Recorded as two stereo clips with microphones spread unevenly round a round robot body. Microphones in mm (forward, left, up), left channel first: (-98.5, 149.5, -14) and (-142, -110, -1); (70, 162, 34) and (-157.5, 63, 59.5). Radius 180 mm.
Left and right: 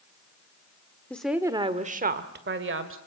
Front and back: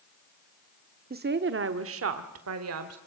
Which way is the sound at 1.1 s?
160° left.